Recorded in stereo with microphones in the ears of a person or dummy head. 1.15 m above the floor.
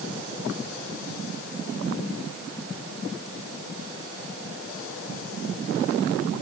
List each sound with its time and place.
Only background noise.